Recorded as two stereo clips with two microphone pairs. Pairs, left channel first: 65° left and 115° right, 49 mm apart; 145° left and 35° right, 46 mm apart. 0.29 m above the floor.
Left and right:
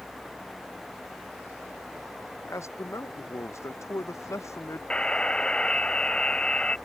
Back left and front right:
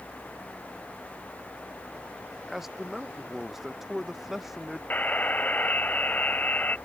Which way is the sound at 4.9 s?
125° left.